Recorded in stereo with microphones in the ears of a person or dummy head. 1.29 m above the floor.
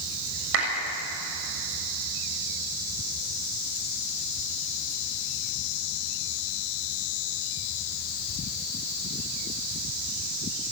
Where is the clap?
85° right, 7 m.